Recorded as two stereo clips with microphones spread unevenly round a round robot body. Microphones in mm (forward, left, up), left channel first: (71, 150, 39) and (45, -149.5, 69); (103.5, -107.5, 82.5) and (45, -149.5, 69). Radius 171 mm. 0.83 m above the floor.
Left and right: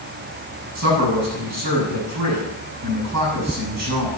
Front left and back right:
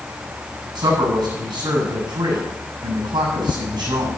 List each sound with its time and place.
0.8 s a man speaking: 140° right, 7 m